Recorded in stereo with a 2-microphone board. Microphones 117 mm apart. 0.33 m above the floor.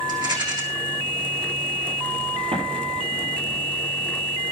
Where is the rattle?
35° right (ahead or behind), 3.5 m.